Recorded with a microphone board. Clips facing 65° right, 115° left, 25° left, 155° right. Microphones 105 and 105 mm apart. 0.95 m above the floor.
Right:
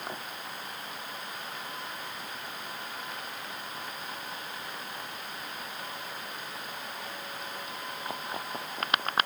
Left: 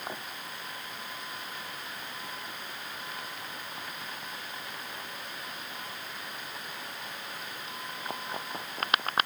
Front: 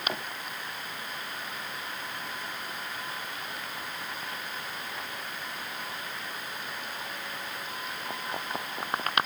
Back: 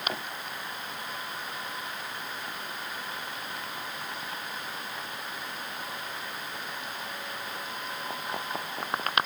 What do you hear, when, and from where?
Only background noise.